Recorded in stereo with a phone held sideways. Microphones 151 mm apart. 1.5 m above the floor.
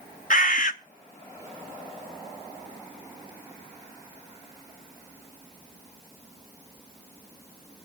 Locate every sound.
0.3 s a bird: 60° left (ahead or behind), 1.0 m